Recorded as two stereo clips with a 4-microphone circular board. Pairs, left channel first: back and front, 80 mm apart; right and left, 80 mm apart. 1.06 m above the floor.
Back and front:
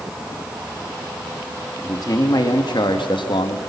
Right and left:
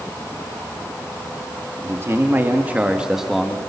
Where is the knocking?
I don't hear knocking.